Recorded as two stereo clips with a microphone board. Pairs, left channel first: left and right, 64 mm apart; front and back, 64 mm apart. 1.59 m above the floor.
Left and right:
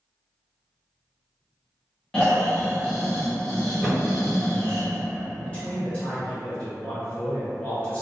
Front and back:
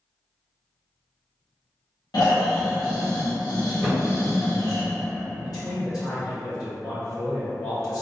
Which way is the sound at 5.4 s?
20° left.